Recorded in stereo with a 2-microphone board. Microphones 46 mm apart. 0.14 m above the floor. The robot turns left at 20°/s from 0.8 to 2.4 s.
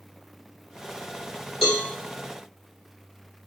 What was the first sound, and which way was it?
A cowbell, centre (ahead or behind).